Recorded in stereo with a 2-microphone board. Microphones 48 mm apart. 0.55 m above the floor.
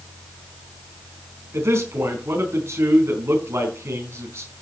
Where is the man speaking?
60° right (ahead or behind), 4.5 m.